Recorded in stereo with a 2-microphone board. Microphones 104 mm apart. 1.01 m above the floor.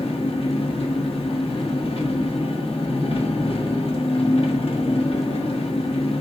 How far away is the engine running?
About 1.3 m.